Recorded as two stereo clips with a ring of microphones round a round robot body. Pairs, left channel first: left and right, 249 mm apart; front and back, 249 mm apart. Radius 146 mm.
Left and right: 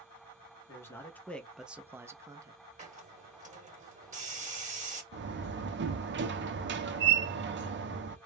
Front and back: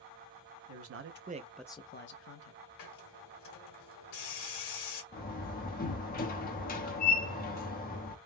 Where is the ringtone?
No ringtone in this recording.